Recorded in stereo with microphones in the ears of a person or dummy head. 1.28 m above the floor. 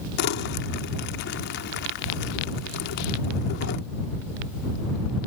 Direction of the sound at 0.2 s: 60° left (ahead or behind).